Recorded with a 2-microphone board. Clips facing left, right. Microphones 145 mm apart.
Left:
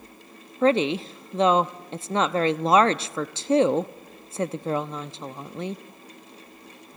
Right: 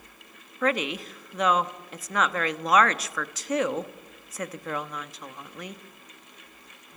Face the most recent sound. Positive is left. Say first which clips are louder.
# left 6 dB
turn(degrees=30)  # may be behind; listen again after turning